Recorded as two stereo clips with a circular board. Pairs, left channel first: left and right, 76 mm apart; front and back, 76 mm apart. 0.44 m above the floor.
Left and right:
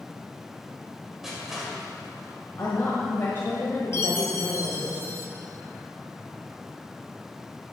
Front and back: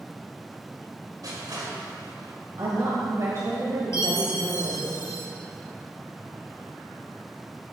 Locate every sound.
1.2 s crushing: 175° right, 2 m
2.6 s a woman speaking: 145° left, 1.5 m
3.9 s a chime: 40° left, 1.2 m